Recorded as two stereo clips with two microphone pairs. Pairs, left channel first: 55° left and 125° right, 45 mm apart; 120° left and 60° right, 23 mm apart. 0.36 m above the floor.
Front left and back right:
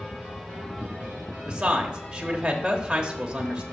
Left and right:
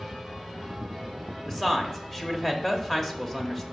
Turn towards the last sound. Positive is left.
turn(degrees=180)